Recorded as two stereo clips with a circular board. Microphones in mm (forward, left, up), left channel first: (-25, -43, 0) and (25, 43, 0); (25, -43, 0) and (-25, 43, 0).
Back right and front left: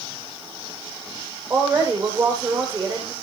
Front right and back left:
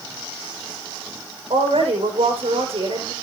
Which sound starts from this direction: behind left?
A woman speaking, at 1.5 s.